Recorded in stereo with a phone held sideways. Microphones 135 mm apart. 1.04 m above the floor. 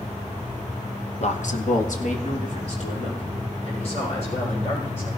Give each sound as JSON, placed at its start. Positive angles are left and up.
{"t": 1.2, "sound": "a man speaking", "side_deg": 55, "distance_m": 1.0}